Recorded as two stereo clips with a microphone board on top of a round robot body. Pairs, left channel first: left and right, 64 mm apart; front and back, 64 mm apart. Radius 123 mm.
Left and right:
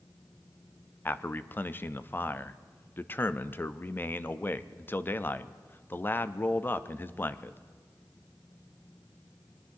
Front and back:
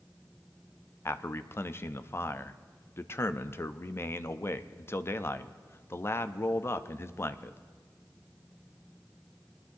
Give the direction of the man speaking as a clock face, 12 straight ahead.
11 o'clock.